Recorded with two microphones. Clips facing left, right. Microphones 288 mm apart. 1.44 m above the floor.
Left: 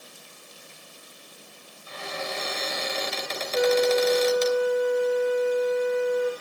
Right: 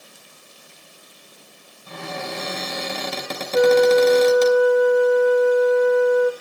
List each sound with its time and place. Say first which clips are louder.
1.9 s a cupboard door: right 4 dB; 60° right (ahead or behind), 3.5 m
3.5 s a flute: right 7 dB; 65° right (ahead or behind), 0.7 m